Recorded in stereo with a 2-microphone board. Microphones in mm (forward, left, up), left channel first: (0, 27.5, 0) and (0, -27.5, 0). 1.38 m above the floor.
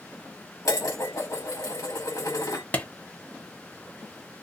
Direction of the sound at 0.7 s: 75° left (ahead or behind).